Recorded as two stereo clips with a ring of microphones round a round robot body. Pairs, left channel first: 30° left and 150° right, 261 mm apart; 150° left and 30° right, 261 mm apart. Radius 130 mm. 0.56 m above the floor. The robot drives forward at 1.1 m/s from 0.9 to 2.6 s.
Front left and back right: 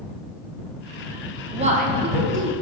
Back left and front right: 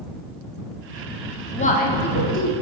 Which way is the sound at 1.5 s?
175° left.